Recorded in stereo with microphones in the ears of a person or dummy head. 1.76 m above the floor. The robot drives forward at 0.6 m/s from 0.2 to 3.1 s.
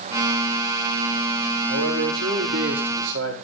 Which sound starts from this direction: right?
A man speaking, at 1.7 s.